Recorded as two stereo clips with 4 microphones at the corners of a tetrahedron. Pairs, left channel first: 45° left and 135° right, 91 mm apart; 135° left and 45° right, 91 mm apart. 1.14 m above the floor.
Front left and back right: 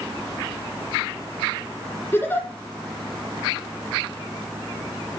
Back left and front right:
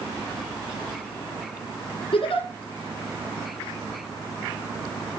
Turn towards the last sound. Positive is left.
turn(degrees=115)